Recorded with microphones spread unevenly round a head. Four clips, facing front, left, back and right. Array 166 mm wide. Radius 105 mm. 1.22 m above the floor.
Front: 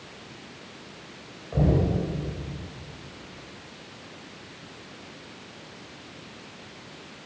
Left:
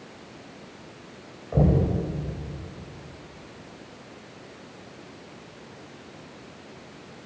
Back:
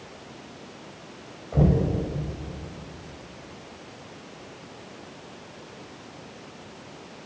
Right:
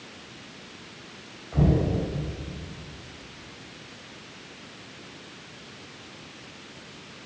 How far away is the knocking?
About 6.5 m.